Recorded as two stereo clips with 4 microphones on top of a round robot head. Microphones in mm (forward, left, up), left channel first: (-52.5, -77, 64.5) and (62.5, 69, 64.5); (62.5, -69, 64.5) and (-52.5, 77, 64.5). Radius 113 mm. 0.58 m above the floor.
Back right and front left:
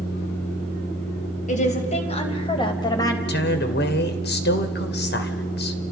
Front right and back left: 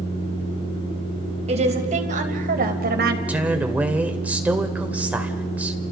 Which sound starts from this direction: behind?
A woman speaking, at 1.5 s.